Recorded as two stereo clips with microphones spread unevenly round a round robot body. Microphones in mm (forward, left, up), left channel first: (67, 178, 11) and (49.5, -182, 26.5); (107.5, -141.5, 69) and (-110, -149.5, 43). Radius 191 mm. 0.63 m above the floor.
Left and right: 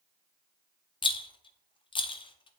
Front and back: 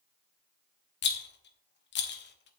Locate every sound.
1.0 s a rattle: 20° left, 0.9 m